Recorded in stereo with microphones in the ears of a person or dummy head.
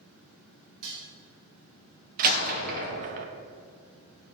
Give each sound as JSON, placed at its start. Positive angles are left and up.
{"t": 0.8, "sound": "dishes clattering", "side_deg": -75, "distance_m": 4.0}
{"t": 2.2, "sound": "a door slam", "side_deg": -45, "distance_m": 1.3}